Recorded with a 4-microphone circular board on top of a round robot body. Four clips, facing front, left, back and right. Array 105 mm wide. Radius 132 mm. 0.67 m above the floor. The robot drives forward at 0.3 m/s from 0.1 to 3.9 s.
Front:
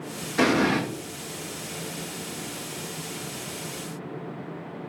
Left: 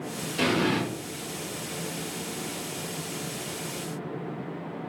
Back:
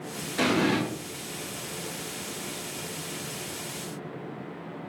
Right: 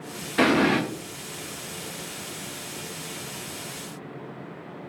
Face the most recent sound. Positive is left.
turn(degrees=-110)